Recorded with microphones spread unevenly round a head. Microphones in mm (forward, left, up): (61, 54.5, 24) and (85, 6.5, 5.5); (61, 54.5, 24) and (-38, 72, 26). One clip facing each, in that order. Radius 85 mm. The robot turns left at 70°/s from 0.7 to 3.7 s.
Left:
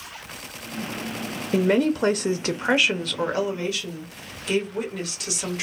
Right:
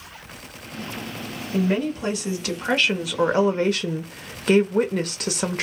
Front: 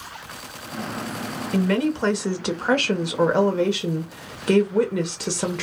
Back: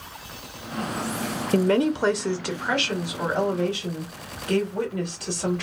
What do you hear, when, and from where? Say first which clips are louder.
1.5 s a woman speaking: left 3 dB, back 1 dB; 125° left, 0.5 m; by 5.6 s 30° right, 0.5 m